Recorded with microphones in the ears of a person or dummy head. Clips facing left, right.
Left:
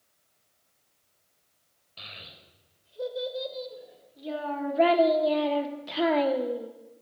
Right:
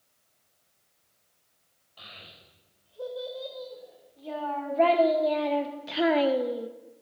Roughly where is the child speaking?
Left.